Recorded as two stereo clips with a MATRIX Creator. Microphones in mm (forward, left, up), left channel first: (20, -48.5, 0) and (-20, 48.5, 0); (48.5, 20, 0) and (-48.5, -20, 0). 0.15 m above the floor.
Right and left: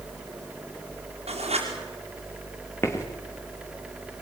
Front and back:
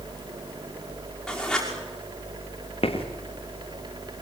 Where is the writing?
105° left, 6 m.